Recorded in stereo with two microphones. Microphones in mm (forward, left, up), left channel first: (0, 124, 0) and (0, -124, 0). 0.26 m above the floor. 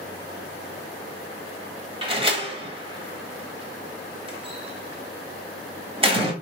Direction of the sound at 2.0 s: 25° right (ahead or behind).